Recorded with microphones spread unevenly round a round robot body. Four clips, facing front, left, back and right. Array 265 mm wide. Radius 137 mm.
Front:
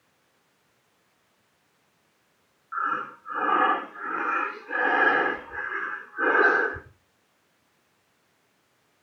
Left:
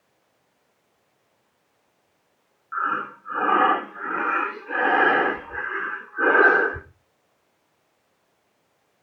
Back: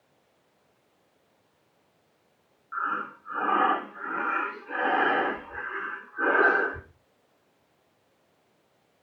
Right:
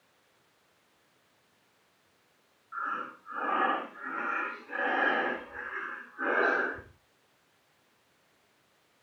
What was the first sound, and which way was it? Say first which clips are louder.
Breathing: left 9 dB, front 2 dB; 75° left.